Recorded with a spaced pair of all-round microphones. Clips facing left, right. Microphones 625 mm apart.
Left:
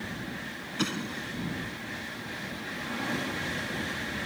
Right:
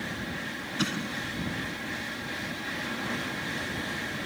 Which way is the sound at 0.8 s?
10° right (ahead or behind).